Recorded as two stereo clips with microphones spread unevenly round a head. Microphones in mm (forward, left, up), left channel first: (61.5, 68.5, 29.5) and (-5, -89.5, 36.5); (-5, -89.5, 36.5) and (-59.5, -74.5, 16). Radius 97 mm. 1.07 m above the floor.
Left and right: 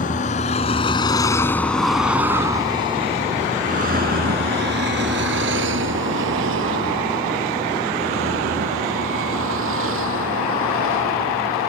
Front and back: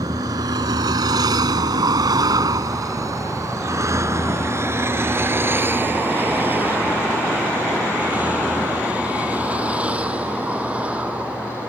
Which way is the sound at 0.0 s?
120° left.